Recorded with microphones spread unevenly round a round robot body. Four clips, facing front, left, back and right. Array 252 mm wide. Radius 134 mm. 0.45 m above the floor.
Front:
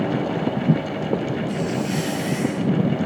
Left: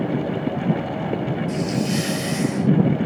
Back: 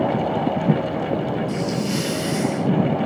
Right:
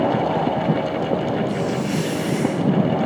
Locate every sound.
1.5 s a hiss: 120° left, 1.7 m